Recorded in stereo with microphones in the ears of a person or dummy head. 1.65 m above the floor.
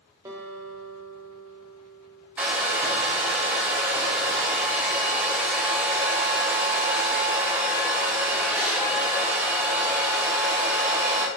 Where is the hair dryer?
10° right (ahead or behind), 0.7 m.